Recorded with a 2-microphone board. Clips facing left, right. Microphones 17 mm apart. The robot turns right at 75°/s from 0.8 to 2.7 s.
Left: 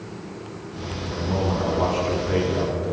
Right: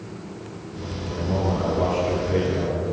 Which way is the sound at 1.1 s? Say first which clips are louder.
Even; 10° right (ahead or behind).